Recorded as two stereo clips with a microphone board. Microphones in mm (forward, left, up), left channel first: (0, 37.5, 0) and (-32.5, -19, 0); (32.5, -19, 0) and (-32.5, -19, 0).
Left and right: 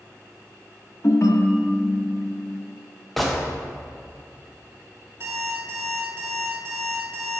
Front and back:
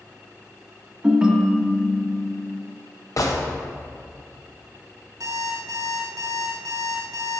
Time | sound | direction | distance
1.0 | a ringtone | 105° left | 0.7 m
3.2 | a gunshot | 30° right | 0.8 m
5.2 | an alarm clock | 165° right | 2 m